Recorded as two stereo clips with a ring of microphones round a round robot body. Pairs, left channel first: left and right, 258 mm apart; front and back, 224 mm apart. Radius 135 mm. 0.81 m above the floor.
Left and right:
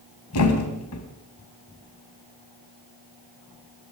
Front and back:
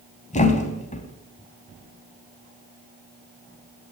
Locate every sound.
0.3 s a thud: 60° left, 3 m